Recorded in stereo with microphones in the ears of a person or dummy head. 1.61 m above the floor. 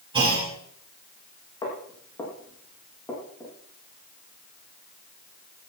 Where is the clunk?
30° right (ahead or behind), 4.5 m.